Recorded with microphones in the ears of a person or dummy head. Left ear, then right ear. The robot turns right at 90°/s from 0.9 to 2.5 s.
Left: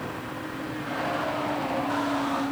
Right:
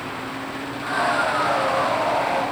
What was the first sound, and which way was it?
Only background noise.